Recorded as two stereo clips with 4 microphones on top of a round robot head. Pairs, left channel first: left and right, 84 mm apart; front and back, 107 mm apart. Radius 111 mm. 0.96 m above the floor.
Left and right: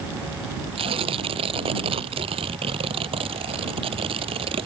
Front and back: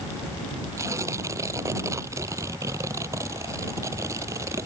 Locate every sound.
0.8 s tearing paper: 110° right